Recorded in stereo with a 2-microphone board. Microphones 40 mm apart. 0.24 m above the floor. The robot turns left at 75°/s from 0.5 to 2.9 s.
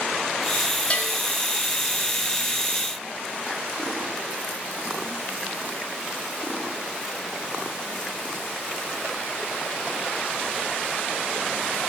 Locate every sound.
0.9 s a bell: 30° left (ahead or behind), 1.9 m; by 1.1 s 35° left (ahead or behind), 1.9 m